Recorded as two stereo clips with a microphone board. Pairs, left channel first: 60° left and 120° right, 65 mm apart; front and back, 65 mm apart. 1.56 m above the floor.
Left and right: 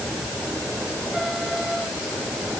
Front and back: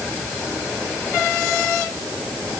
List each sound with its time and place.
Only background noise.